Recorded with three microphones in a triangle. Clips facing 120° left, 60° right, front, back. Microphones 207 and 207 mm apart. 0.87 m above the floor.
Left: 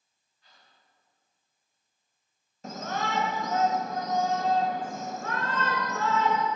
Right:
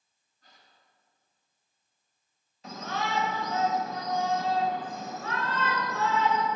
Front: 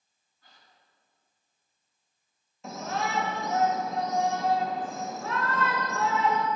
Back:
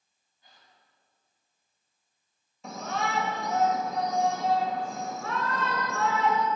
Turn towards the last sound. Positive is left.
turn(degrees=90)